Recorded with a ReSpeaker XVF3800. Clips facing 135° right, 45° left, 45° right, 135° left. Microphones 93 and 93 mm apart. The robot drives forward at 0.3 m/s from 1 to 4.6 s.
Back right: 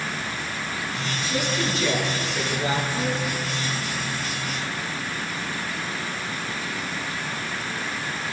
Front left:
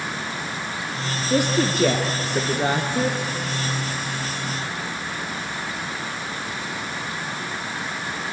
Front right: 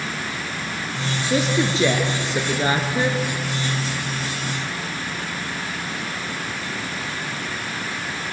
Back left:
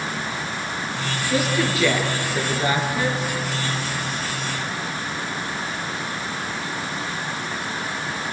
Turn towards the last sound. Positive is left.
turn(degrees=20)